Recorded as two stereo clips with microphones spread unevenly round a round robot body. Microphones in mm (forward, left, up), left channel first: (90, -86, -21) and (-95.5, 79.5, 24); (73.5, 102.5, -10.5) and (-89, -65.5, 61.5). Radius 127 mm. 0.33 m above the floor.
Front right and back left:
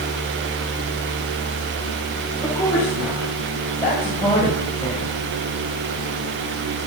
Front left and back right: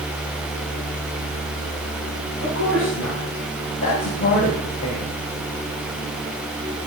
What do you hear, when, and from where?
2.4 s a woman speaking: 30° left, 3 m; by 5.2 s 25° left, 1.7 m